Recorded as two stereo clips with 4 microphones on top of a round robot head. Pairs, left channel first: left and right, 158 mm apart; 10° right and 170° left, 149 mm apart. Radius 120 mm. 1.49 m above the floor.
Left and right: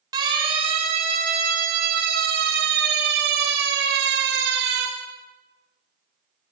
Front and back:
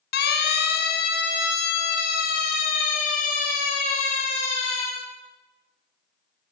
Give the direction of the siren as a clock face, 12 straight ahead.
1 o'clock.